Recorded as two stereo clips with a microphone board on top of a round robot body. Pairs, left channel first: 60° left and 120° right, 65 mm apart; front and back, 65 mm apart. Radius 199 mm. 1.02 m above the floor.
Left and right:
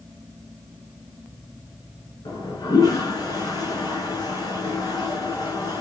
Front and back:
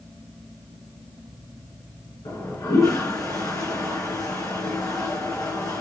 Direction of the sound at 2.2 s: 35° left.